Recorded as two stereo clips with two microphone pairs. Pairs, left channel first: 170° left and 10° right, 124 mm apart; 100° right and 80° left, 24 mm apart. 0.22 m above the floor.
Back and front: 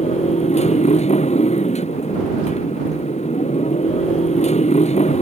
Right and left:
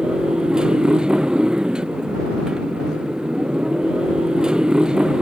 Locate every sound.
0.0 s a motorcycle: 140° left